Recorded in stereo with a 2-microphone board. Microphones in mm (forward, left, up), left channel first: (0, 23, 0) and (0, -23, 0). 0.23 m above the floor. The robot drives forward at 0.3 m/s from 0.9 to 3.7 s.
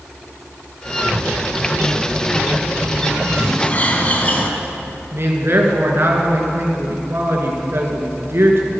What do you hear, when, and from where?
1.0 s a zipper: 45° right (ahead or behind), 6.5 m; by 3.5 s 50° right (ahead or behind), 6 m
3.6 s a bird: 35° left (ahead or behind), 1.8 m
5.1 s a man speaking: 55° right (ahead or behind), 3 m